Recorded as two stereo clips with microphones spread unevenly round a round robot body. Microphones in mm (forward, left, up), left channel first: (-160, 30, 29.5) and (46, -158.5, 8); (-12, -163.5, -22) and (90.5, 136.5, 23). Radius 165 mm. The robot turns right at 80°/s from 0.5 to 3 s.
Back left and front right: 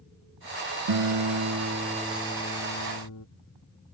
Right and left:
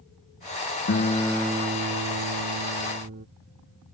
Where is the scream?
No scream in this recording.